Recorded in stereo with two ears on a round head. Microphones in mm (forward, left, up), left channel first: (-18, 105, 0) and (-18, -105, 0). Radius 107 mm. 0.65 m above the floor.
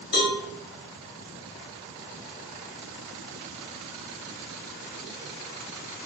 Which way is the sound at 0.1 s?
45° left (ahead or behind).